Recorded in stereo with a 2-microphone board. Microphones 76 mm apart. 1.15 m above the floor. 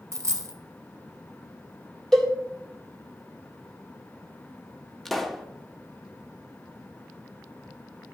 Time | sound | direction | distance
0.1 | a dropped coin | 40° right (ahead or behind) | 1.2 m
2.1 | a cowbell | 5° left (ahead or behind) | 1.6 m
5.0 | a pop | 5° left (ahead or behind) | 0.8 m